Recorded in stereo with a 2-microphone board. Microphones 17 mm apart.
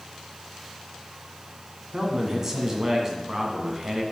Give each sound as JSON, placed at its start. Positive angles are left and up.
{"t": 1.9, "sound": "a man speaking", "side_deg": -25, "distance_m": 1.7}